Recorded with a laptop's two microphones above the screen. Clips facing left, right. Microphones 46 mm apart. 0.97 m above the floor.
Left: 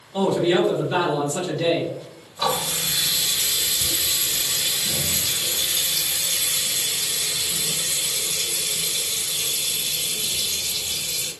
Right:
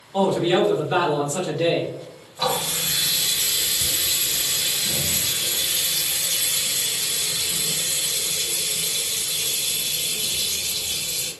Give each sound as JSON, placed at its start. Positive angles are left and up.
{"t": 0.1, "sound": "a man speaking", "side_deg": -20, "distance_m": 1.0}
{"t": 2.4, "sound": "a running tap", "side_deg": -25, "distance_m": 1.8}